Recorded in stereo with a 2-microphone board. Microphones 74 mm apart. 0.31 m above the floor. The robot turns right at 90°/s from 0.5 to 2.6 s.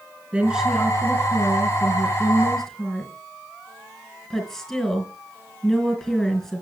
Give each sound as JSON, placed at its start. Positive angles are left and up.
{"t": 0.3, "sound": "a woman speaking", "azimuth_deg": -15, "distance_m": 3.0}